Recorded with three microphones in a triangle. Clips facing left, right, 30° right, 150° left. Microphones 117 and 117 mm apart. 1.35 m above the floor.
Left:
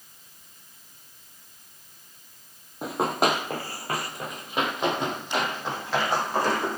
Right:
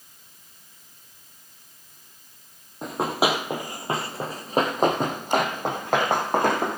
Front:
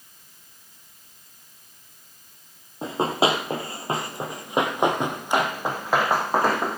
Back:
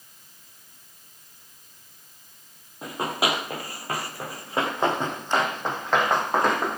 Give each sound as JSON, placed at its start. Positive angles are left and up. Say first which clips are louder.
{"t": 2.8, "sound": "running footsteps", "louder": "even, front 5 dB", "azimuth_deg": 5, "distance_m": 1.6}